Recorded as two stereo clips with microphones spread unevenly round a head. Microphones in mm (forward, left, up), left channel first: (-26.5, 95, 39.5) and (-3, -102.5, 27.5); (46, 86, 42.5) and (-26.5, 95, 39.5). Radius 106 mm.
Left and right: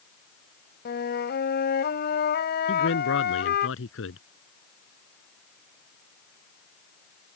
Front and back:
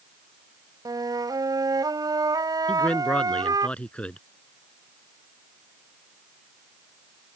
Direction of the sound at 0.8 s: 140° left.